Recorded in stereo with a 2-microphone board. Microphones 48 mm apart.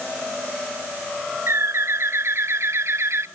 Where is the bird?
60° right (ahead or behind), 0.5 m.